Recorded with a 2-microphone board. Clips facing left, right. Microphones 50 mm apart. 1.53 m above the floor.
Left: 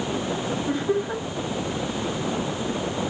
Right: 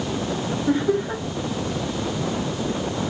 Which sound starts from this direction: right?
Laughter, at 0.7 s.